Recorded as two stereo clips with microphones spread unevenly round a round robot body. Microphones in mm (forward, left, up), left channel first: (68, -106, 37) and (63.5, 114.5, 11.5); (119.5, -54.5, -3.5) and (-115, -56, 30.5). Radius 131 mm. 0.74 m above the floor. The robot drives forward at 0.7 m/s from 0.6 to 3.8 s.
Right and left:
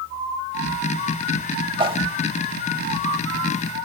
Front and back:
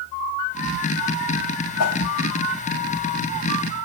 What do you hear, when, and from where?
1.8 s a whoosh: 25° left, 0.8 m; by 2.0 s 30° left, 0.6 m